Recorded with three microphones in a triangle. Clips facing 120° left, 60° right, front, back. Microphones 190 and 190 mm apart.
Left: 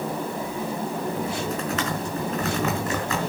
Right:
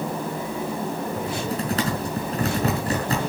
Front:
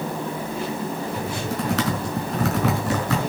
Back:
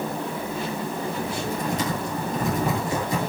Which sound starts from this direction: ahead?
Typing on a keyboard, at 1.2 s.